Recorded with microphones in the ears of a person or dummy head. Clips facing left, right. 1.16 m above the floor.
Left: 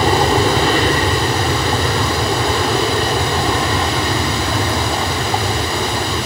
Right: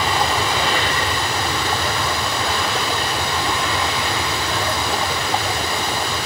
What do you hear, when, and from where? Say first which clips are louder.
0.0 s an aircraft: left 7 dB; 40° left (ahead or behind)